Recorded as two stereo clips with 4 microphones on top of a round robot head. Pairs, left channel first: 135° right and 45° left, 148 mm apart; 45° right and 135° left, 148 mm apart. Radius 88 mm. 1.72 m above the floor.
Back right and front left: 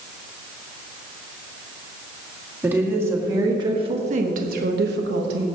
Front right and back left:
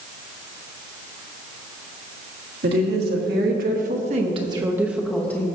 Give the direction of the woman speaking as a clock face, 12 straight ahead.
8 o'clock.